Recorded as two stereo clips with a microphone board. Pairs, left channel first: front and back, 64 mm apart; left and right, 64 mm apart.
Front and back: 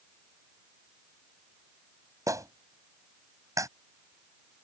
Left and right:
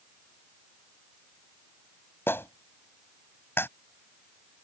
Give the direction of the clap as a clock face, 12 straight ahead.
7 o'clock.